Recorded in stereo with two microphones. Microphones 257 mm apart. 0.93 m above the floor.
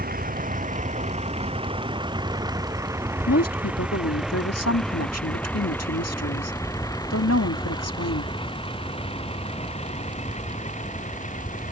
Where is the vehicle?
35° right (ahead or behind); by 11.7 s 30° left (ahead or behind).